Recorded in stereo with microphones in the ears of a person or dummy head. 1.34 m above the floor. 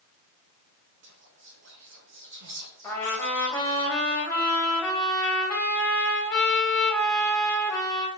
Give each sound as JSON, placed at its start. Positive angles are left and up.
{"t": 1.0, "sound": "whispering", "side_deg": -60, "distance_m": 0.7}
{"t": 2.8, "sound": "a trumpet", "side_deg": 15, "distance_m": 1.7}